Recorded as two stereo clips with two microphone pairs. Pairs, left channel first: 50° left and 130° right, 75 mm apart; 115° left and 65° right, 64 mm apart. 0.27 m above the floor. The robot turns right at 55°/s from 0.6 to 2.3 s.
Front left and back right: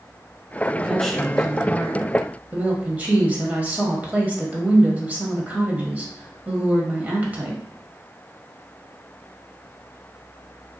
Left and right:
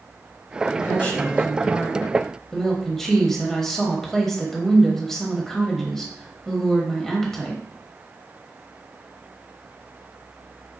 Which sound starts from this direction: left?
A woman speaking, at 0.8 s.